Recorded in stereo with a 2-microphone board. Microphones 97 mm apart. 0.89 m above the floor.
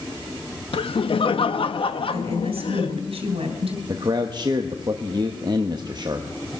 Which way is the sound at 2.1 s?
85° right.